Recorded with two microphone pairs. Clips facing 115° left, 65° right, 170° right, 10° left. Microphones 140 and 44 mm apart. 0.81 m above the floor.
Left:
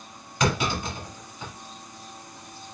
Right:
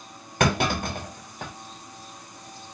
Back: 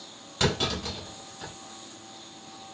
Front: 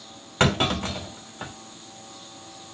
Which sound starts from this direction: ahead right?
A clunk, at 0.4 s.